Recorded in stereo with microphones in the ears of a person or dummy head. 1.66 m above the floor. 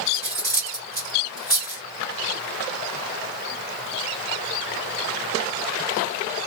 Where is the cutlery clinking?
15° left (ahead or behind), 1.9 m.